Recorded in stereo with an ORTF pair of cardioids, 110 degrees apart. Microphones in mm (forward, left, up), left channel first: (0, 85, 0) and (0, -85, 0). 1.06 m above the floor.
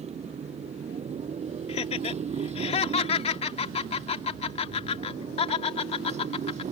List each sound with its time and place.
0.0 s a motorcycle: 40° right
1.7 s laughter: 40° left